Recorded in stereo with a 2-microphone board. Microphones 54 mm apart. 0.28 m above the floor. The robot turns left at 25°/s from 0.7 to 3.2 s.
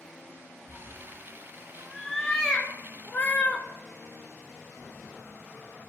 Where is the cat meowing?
30° right (ahead or behind), 0.6 m; by 3.6 s 35° left (ahead or behind), 0.6 m.